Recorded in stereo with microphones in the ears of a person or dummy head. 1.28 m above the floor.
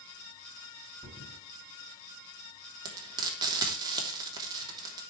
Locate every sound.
1.0 s a thud: centre (ahead or behind), 5.5 m
2.9 s frying: 20° right (ahead or behind), 3 m